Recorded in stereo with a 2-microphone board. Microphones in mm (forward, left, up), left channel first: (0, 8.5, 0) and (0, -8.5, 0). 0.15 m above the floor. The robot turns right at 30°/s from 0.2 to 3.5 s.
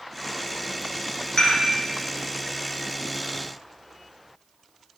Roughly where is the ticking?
No ticking in this recording.